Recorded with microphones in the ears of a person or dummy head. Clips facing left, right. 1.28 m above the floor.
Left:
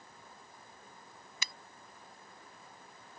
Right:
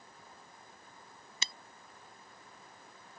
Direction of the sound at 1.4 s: 30° right (ahead or behind).